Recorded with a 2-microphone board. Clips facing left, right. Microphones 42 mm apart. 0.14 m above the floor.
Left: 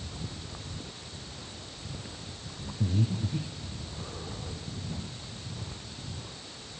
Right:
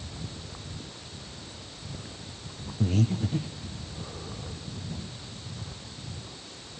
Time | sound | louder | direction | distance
2.8 | breathing | right 4 dB | 70° right (ahead or behind) | 2.5 m